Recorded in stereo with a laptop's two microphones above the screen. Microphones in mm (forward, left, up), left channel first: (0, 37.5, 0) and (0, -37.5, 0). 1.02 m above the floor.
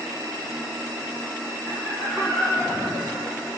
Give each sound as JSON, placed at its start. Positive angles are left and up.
{"t": 1.7, "sound": "laughter", "side_deg": 10, "distance_m": 4.0}